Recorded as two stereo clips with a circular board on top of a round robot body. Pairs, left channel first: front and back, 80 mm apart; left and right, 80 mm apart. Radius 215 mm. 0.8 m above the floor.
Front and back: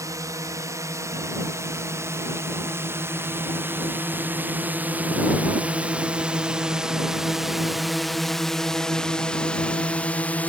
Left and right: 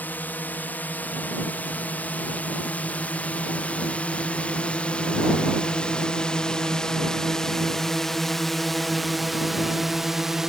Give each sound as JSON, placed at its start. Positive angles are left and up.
{"t": 0.0, "sound": "a drone", "azimuth_deg": 150}